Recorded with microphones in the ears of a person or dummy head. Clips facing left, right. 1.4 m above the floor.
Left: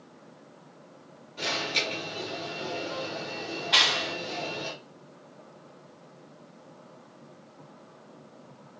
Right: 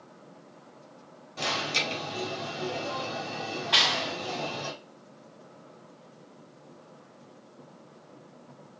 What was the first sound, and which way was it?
An alarm, 60° right (ahead or behind).